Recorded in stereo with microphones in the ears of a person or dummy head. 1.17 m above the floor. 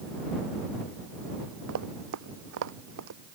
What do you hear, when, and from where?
1.7 s running footsteps: 70° right (ahead or behind)